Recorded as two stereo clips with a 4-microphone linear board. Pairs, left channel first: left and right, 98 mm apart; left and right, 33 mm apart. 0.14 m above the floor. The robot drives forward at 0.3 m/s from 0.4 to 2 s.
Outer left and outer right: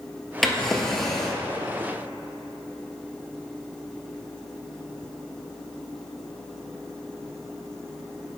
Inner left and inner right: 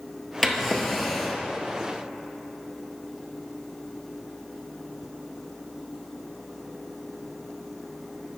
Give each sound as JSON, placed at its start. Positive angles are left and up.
{"t": 0.4, "sound": "a drawer", "side_deg": 5, "distance_m": 1.3}